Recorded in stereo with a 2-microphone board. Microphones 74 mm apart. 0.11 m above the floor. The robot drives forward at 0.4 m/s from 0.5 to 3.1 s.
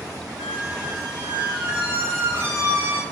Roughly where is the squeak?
Right.